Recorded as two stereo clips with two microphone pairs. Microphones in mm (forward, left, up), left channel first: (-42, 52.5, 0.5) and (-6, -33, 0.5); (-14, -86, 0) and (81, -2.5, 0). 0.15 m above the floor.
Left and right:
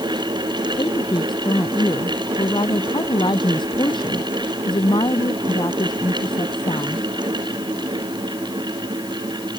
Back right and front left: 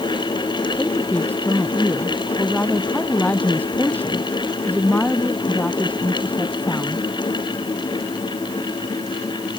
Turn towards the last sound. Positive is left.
turn(degrees=145)